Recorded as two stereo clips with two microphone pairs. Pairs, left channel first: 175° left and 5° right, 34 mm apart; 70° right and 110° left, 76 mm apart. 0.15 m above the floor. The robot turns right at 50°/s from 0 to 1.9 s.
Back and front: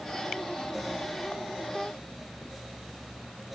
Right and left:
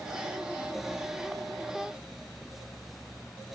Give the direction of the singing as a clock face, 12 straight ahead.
No singing in this recording.